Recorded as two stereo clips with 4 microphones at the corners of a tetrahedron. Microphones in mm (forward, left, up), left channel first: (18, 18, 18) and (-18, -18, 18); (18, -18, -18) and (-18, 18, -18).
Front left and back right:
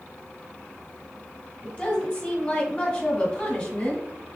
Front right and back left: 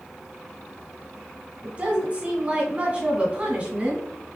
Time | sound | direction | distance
1.6 | a woman speaking | 100° left | 1.4 m